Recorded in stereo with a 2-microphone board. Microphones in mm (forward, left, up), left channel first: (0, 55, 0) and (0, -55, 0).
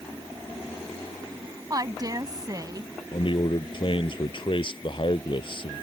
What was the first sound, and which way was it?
A woman speaking, 35° right (ahead or behind).